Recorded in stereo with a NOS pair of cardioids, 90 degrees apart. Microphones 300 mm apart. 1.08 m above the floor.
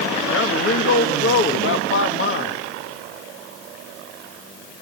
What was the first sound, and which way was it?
A man speaking, 45° left.